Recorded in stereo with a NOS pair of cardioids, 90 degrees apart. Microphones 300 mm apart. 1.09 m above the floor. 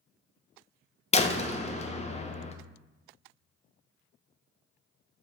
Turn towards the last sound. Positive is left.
turn(degrees=20)